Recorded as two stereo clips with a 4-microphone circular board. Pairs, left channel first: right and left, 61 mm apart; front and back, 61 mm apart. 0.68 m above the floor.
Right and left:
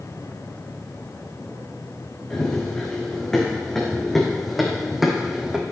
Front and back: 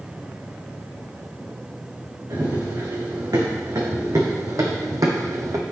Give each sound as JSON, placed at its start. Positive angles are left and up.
{"t": 2.3, "sound": "running footsteps", "azimuth_deg": -165, "distance_m": 3.0}